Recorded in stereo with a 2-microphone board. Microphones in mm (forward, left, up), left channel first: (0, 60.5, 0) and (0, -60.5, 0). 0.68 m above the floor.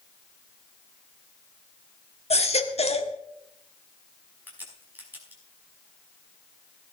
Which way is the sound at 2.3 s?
65° left (ahead or behind).